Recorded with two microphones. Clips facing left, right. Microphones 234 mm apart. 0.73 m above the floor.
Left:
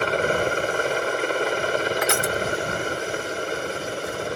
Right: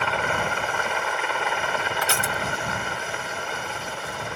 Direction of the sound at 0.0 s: 40° left (ahead or behind).